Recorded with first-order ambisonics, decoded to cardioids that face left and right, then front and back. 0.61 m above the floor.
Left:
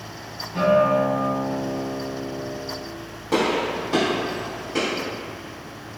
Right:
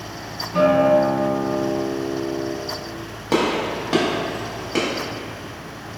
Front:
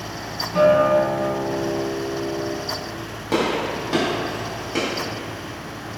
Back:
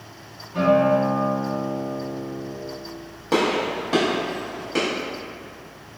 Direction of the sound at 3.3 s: 85° right.